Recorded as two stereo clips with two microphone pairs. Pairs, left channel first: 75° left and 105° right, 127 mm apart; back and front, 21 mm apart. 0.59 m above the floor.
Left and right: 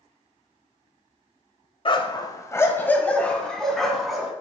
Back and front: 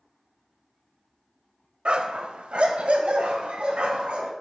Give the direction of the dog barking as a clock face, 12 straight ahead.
11 o'clock.